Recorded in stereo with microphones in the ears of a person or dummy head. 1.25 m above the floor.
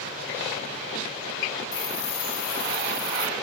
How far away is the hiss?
About 2.5 m.